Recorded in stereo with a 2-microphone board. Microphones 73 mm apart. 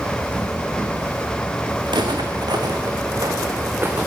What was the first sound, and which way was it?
Footsteps, 80° right.